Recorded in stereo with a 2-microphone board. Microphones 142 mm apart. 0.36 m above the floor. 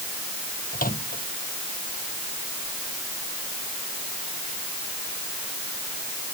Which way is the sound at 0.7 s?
80° left.